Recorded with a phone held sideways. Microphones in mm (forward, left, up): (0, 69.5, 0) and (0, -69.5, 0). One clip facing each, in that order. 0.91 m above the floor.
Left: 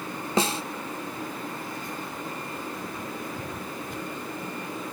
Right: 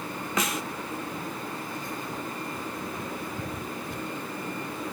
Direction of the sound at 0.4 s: 30° left (ahead or behind).